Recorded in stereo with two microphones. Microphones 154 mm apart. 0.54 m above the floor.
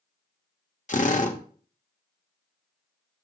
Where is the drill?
55° left (ahead or behind), 1.1 m.